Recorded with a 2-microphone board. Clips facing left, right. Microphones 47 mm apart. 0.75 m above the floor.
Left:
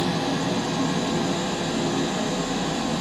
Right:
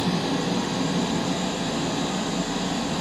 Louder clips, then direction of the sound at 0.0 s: Left 1 dB; 60° left (ahead or behind).